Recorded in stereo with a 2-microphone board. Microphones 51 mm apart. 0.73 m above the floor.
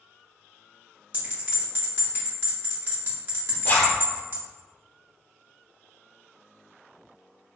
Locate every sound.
1.1 s a bell: 45° right (ahead or behind), 1.1 m
3.6 s a zipper: 40° left (ahead or behind), 0.7 m